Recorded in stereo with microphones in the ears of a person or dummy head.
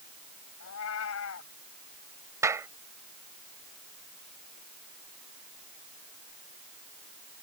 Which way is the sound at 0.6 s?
75° left (ahead or behind).